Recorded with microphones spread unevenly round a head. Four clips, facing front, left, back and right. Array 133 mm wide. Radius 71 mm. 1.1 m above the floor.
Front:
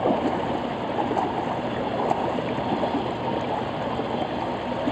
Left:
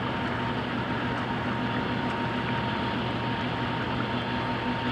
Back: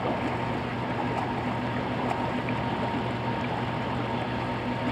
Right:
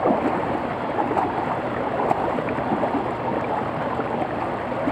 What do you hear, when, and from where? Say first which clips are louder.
0.0 s running water: right 10 dB, front 6 dB; 60° right